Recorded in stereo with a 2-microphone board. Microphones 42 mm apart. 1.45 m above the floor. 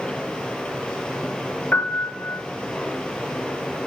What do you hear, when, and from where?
0.0 s running water: 20° left (ahead or behind), 6 m
1.7 s a piano: 45° left (ahead or behind), 4 m